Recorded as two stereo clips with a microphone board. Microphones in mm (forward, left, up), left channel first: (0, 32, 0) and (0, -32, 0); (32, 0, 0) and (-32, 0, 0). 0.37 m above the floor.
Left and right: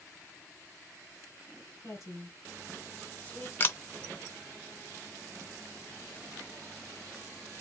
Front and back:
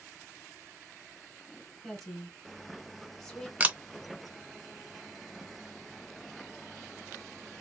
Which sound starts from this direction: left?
A woman speaking, at 1.8 s.